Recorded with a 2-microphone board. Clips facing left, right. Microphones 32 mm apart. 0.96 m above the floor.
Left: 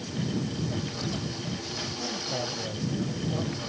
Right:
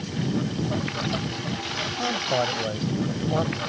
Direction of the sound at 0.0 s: 45° right (ahead or behind).